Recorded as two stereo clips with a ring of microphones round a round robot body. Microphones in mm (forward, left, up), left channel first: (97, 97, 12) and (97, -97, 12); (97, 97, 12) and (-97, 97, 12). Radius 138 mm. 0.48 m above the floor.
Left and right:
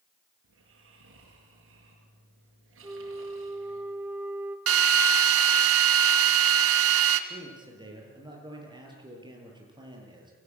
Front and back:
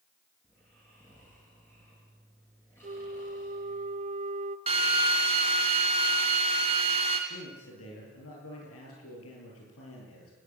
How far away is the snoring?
About 6.5 m.